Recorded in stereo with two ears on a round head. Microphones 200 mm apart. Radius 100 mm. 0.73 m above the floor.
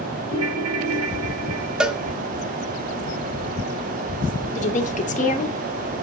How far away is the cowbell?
About 1.0 m.